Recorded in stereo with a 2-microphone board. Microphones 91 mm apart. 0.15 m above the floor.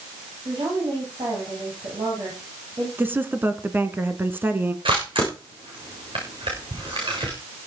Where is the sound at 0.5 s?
60° right (ahead or behind), 9 m.